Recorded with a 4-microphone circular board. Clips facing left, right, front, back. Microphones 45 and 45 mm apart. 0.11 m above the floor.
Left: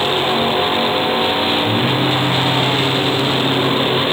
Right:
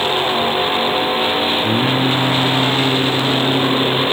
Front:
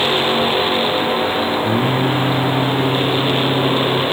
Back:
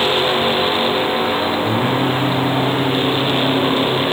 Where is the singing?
70° right, 1.1 m.